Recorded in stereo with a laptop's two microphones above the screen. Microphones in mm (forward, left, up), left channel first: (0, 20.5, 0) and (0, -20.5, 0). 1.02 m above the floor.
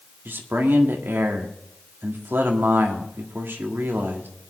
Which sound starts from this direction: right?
A man speaking, at 0.2 s.